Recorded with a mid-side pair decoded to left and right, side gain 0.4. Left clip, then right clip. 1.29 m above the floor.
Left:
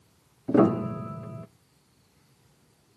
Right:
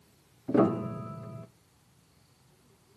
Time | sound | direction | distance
0.5 | a piano | 30° left | 0.6 m